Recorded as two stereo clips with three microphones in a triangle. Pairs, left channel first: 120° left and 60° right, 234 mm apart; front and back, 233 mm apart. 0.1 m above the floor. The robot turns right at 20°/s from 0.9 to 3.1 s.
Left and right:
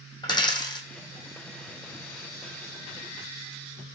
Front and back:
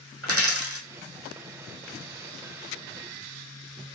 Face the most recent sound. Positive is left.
turn(degrees=-125)